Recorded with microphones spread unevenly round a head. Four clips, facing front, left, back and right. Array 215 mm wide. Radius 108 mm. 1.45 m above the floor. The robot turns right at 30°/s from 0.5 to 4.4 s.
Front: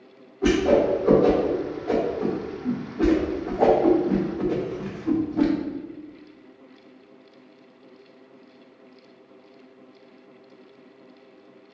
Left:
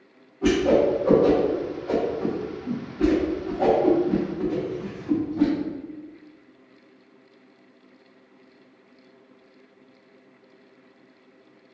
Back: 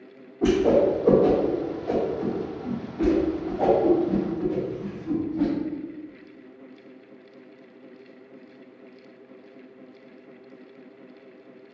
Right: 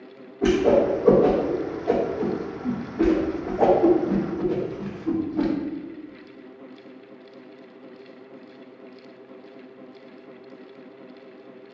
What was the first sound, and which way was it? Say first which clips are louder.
A whoosh: right 1 dB, even; 155° right.